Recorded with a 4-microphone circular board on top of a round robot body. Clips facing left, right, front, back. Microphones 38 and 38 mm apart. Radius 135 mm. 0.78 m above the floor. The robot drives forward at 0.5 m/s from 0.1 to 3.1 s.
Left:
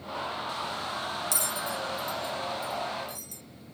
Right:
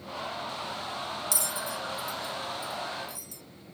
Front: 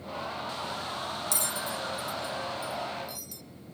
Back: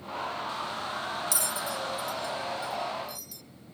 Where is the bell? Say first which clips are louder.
Left 2 dB, back 1 dB; 45° left, 1.4 m; by 3.4 s 90° left, 1.1 m.